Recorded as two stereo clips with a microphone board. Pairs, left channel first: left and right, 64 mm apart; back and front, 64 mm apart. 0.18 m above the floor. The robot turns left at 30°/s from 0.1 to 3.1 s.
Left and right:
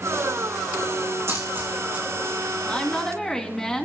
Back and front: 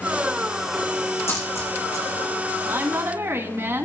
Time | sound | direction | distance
1.3 | a dropped coin | 135° right | 3.5 m
2.6 | a woman speaking | 30° left | 1.7 m